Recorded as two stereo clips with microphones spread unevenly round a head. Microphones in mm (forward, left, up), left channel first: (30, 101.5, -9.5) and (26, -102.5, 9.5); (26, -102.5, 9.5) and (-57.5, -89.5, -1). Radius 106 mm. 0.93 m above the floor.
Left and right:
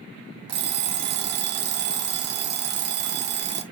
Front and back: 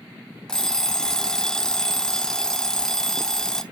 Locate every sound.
0.5 s an alarm clock: 85° right, 0.7 m